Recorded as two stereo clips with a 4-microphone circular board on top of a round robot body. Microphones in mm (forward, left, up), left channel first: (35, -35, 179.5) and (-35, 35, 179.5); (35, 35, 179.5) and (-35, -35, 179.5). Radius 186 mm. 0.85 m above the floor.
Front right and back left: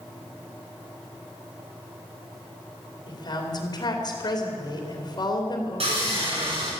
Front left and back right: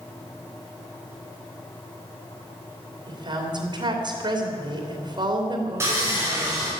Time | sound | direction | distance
3.1 | a woman speaking | 95° right | 3 m
5.8 | sawing | 160° left | 5.5 m